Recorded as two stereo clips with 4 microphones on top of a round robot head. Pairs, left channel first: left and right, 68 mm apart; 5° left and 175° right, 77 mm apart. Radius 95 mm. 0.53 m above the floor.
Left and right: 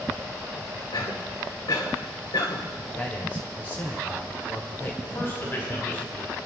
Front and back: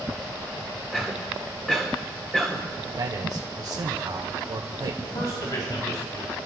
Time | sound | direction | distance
0.9 | a cough | 90° left | 3.5 m
3.0 | a man speaking | 155° left | 2 m
5.0 | a man speaking | 35° left | 5.5 m